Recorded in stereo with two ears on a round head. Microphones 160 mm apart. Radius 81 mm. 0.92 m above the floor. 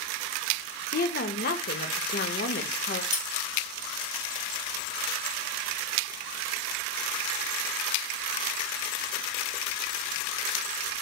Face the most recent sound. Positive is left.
turn(degrees=40)  # may be behind; listen again after turning